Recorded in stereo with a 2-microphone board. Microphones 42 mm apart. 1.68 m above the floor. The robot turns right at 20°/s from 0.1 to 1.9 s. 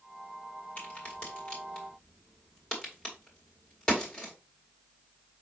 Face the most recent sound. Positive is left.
turn(degrees=15)  # may be behind; listen again after turning